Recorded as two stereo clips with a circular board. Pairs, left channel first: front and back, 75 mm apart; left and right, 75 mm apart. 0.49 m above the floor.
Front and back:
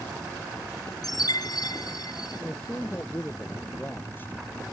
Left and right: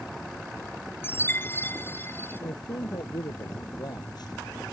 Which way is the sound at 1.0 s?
30° left.